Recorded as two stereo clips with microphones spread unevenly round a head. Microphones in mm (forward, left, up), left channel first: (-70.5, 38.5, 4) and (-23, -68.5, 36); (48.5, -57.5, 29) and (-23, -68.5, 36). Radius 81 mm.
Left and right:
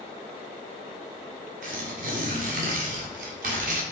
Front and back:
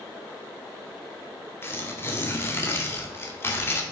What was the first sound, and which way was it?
Tearing paper, 50° right.